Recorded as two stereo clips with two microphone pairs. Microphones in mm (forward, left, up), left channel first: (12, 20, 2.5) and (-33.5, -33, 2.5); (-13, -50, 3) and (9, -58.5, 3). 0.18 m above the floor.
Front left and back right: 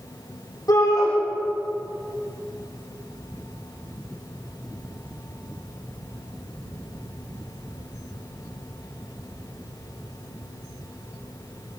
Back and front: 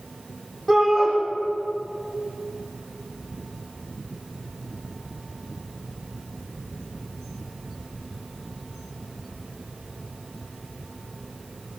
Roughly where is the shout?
Left.